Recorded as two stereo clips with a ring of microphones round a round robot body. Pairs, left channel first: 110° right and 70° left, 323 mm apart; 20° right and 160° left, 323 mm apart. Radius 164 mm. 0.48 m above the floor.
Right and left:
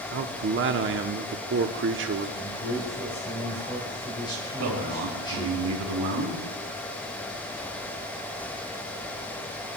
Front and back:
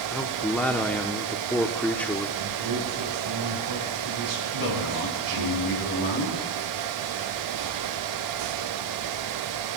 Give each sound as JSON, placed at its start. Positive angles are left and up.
{"t": 0.1, "sound": "a man speaking", "azimuth_deg": 60, "distance_m": 0.8}
{"t": 2.4, "sound": "a man speaking", "azimuth_deg": 170, "distance_m": 3.5}
{"t": 4.6, "sound": "a man speaking", "azimuth_deg": 30, "distance_m": 4.0}